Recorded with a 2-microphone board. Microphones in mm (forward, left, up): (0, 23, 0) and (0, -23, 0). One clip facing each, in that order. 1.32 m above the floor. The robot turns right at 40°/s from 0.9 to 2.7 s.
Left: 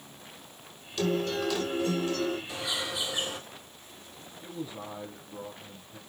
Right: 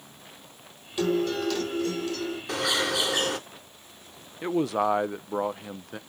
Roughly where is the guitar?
Ahead.